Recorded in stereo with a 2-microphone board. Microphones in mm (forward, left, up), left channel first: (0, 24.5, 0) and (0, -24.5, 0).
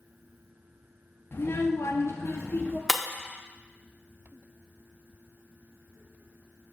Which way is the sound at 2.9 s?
Centre (ahead or behind).